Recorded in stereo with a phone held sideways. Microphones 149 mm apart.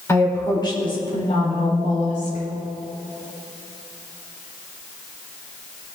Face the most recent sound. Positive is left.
turn(degrees=65)  # may be behind; listen again after turning